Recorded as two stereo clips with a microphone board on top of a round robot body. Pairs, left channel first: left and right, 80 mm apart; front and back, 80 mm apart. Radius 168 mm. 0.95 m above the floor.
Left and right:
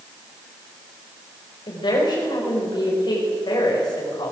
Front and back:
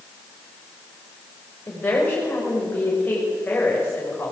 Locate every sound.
1.7 s a woman speaking: 70° left, 5.5 m